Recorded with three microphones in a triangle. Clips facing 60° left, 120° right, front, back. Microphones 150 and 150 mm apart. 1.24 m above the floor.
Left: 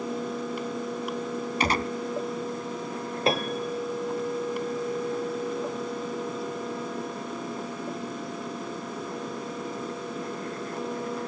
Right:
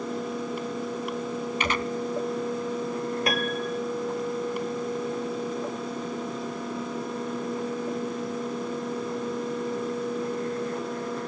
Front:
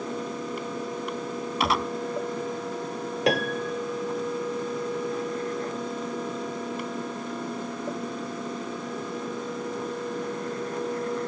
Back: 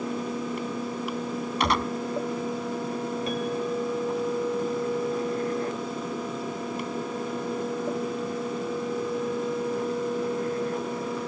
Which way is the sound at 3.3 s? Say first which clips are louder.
Left 1 dB, front 6 dB; straight ahead.